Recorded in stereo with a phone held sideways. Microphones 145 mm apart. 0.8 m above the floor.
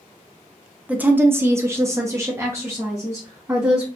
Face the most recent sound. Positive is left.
turn(degrees=-20)  # may be behind; listen again after turning